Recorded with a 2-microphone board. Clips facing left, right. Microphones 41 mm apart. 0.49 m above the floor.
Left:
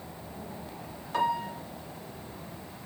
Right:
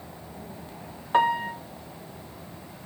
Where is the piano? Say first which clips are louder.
Right 6 dB; 40° right (ahead or behind), 0.5 m.